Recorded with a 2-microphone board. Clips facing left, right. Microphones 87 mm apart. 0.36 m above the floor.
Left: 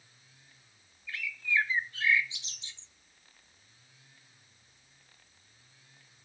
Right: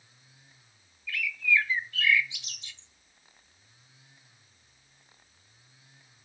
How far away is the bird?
About 0.7 m.